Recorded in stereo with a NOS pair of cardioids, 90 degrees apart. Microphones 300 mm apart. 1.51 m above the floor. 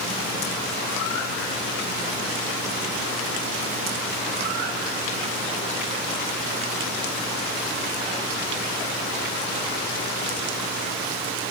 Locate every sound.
Only background noise.